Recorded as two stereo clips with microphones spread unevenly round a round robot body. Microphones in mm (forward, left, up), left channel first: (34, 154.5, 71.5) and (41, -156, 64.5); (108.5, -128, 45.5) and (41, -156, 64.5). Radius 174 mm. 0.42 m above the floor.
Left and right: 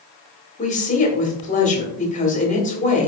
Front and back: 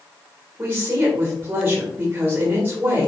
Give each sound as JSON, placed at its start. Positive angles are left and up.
{"t": 0.6, "sound": "a woman speaking", "azimuth_deg": 135, "distance_m": 1.3}